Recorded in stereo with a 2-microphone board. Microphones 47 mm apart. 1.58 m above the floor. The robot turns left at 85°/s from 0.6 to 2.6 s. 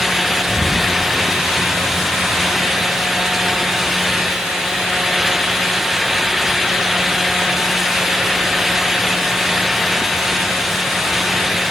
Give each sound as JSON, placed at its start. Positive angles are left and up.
{"t": 0.5, "sound": "an explosion", "side_deg": -40, "distance_m": 4.5}